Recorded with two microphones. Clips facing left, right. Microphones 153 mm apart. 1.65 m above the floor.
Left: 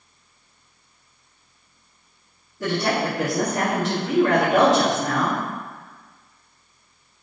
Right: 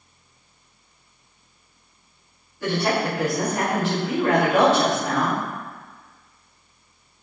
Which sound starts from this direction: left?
A woman speaking, at 2.6 s.